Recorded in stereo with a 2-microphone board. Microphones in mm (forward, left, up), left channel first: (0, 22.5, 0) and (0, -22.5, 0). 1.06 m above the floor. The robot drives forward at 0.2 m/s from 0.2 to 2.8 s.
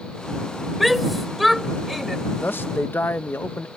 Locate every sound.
0.8 s a shout: 5° right (ahead or behind)
2.4 s a man speaking: 50° left (ahead or behind)